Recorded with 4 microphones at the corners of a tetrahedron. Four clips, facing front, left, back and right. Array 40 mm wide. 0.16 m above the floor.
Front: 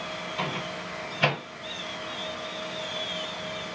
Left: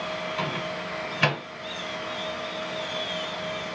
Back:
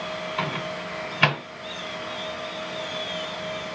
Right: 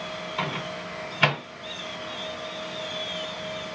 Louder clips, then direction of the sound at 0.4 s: Left 1 dB, back 2 dB; 175° right.